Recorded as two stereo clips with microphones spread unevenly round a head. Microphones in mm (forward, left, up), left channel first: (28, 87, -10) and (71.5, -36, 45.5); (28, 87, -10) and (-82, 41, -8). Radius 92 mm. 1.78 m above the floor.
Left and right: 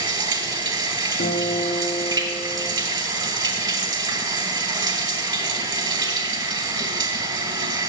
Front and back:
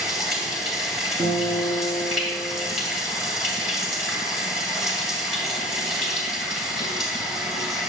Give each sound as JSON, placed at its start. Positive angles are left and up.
{"t": 0.0, "sound": "running water", "azimuth_deg": -70, "distance_m": 2.0}
{"t": 1.2, "sound": "a guitar", "azimuth_deg": 135, "distance_m": 7.0}